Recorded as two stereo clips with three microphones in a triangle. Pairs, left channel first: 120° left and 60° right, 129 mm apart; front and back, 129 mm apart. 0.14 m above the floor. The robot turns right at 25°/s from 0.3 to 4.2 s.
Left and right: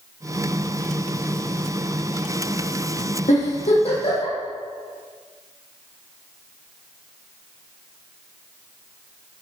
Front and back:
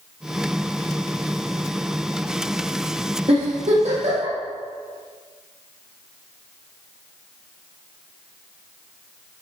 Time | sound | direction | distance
3.3 | a giggle | 140° left | 5 m